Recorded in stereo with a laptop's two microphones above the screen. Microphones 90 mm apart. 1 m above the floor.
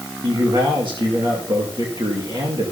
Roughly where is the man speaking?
Right.